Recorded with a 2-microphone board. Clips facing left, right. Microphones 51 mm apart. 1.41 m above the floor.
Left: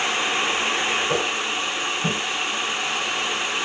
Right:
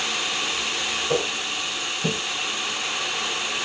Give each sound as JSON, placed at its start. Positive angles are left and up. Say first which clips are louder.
{"t": 1.1, "sound": "footsteps", "louder": "left 2 dB", "side_deg": 5, "distance_m": 8.5}